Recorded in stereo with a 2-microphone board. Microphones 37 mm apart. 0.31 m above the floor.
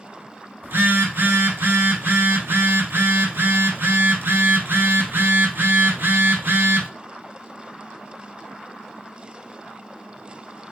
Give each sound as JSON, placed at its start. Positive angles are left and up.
{"t": 0.6, "sound": "a phone buzzing", "side_deg": -80, "distance_m": 1.2}